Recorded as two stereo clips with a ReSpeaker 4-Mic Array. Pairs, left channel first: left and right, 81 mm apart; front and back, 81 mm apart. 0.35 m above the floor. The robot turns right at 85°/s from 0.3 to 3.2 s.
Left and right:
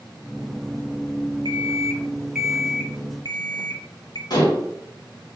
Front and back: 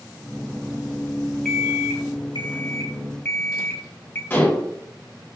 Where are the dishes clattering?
60° left, 1.9 m.